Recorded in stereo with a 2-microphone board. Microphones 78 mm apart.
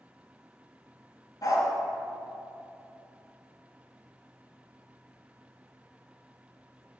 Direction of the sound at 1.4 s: 55° left (ahead or behind).